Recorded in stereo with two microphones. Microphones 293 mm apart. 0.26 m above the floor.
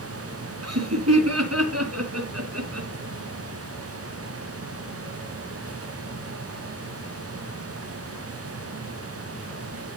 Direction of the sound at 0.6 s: 60° right (ahead or behind).